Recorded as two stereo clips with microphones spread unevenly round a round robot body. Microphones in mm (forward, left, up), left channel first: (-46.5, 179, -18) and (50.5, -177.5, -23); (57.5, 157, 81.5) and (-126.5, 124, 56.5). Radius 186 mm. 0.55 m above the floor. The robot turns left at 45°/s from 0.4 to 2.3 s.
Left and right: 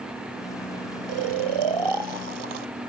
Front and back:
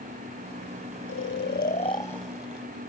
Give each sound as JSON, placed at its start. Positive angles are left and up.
{"t": 1.1, "sound": "snoring", "azimuth_deg": -30}